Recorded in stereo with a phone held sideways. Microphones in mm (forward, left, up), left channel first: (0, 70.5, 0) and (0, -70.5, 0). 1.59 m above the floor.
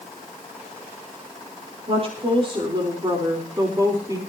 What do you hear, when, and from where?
1.9 s a woman speaking: 45° right (ahead or behind), 4 m; by 4.2 s 25° right (ahead or behind), 4 m